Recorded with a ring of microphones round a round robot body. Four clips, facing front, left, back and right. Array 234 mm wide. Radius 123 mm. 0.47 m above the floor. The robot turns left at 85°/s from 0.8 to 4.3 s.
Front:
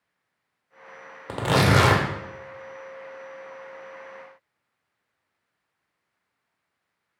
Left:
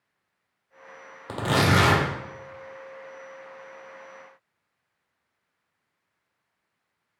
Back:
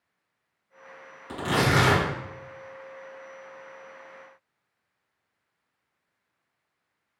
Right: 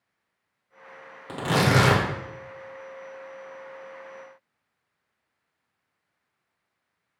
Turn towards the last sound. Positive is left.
turn(degrees=120)